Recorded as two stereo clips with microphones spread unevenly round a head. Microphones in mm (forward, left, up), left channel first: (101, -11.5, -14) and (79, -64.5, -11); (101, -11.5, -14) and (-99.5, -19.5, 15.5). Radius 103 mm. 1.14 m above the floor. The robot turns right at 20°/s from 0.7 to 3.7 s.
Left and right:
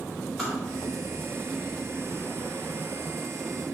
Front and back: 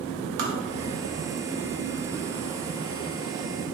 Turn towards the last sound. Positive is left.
turn(degrees=-145)